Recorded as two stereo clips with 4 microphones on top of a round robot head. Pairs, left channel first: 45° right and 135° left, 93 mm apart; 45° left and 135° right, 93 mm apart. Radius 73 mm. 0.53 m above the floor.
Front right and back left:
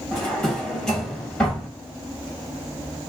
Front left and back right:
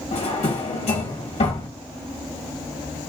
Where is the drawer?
40° left, 1.5 m.